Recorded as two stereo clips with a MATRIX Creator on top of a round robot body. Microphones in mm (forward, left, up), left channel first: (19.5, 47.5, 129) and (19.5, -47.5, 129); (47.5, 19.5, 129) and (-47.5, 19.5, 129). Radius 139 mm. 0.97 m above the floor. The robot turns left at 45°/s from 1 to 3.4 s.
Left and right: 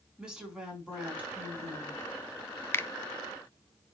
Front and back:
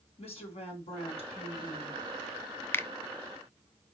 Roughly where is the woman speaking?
Ahead.